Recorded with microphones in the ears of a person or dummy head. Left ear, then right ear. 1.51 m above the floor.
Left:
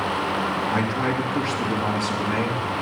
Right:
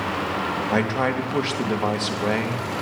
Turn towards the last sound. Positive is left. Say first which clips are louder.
# right 1 dB
turn(degrees=-35)  # may be behind; listen again after turning